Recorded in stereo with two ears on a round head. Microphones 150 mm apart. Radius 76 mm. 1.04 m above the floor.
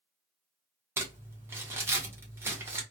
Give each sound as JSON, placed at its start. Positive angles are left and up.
{"t": 1.0, "sound": "crumpling", "side_deg": -15, "distance_m": 0.7}